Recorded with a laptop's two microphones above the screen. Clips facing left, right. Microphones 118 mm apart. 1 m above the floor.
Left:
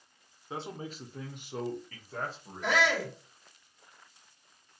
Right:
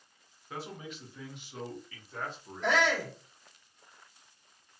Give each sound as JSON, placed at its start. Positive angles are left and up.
{"t": 0.5, "sound": "a man speaking", "side_deg": 25, "distance_m": 0.5}
{"t": 2.6, "sound": "a shout", "side_deg": 5, "distance_m": 1.6}